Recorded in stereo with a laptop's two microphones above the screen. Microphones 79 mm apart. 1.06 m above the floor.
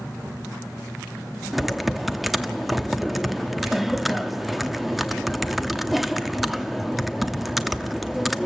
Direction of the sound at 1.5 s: Centre (ahead or behind).